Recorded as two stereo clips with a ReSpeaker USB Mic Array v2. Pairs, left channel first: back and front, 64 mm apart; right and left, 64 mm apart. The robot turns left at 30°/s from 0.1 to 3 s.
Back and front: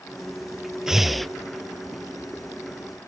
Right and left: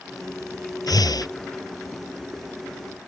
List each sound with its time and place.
0.9 s breathing: 80° right; by 1.3 s 95° right